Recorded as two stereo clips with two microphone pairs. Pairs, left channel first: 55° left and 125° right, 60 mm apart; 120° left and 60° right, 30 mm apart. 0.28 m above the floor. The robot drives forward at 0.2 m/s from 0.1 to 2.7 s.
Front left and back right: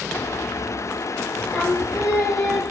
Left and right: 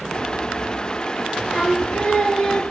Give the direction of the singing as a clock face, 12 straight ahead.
7 o'clock.